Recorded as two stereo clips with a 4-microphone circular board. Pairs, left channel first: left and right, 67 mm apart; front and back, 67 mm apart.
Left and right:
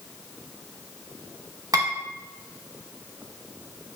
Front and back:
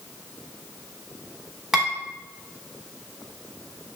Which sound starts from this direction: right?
Dishes clattering, at 1.7 s.